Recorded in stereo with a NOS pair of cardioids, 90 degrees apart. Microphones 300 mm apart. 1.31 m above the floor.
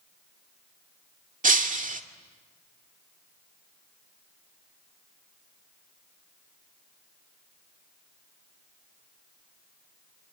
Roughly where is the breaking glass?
Ahead right.